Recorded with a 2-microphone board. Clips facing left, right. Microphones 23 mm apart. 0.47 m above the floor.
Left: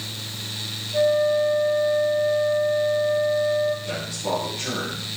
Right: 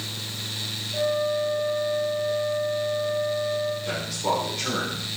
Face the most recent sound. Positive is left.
turn(degrees=-70)  # may be behind; listen again after turning